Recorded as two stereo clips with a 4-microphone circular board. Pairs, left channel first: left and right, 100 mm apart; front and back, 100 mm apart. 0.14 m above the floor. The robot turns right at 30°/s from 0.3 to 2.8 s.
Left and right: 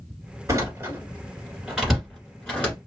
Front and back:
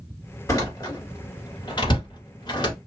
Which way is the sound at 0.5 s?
50° right.